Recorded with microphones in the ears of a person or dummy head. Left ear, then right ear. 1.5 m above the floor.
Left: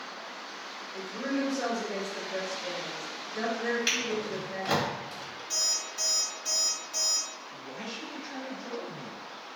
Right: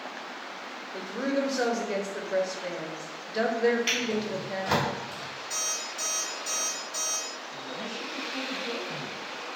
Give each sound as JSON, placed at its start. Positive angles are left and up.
{"t": 0.9, "sound": "a woman speaking", "side_deg": -45, "distance_m": 0.6}
{"t": 3.9, "sound": "a drawer", "side_deg": 55, "distance_m": 1.6}
{"t": 5.5, "sound": "an alarm clock", "side_deg": 45, "distance_m": 1.3}
{"t": 7.5, "sound": "a man speaking", "side_deg": 70, "distance_m": 1.5}